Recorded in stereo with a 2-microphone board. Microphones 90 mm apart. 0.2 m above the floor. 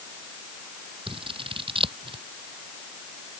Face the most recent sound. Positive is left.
turn(degrees=-80)